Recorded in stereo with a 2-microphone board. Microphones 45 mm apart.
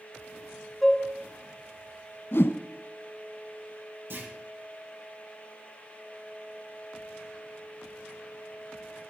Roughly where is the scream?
I don't hear a scream.